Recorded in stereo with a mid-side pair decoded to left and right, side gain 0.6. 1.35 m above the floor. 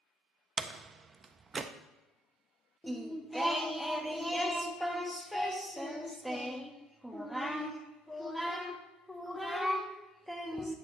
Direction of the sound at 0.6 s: 35° right.